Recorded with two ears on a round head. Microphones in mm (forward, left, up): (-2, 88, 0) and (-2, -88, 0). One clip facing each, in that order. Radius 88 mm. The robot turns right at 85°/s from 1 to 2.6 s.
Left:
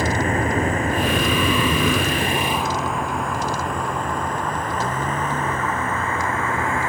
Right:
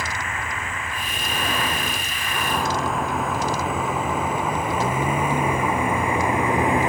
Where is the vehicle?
35° left (ahead or behind); by 6.9 s 15° right (ahead or behind).